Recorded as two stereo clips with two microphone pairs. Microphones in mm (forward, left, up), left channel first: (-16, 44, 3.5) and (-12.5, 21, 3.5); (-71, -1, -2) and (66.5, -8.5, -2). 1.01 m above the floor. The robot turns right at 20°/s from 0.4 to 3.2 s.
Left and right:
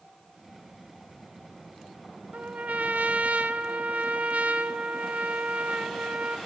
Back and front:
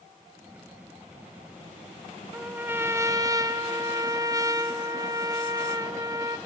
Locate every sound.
2.3 s a trumpet: 85° right, 1.4 m; by 6.4 s 65° right, 1.4 m